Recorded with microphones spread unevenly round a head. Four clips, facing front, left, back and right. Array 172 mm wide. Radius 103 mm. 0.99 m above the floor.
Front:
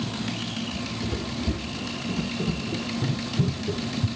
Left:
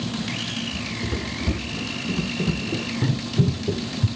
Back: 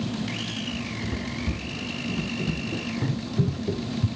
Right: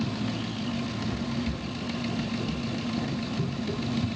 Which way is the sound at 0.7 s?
55° left.